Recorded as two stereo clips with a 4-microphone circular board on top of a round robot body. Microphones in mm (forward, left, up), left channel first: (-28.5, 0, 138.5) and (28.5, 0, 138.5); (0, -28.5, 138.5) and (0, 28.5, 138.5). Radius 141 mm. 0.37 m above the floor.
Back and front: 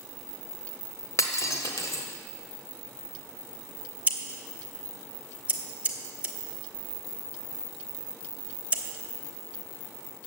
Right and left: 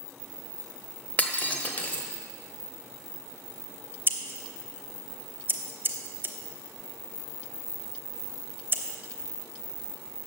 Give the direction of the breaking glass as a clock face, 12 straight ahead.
5 o'clock.